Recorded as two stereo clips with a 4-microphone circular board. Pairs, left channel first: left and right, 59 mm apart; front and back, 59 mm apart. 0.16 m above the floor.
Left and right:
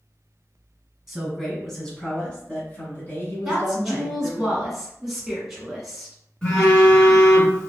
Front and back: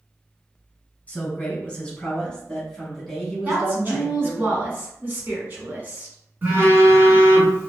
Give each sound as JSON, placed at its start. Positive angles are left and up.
{"t": 1.1, "sound": "a man speaking", "azimuth_deg": -15, "distance_m": 1.5}
{"t": 3.5, "sound": "a woman speaking", "azimuth_deg": -175, "distance_m": 1.5}
{"t": 6.4, "sound": "a phone buzzing", "azimuth_deg": 155, "distance_m": 1.8}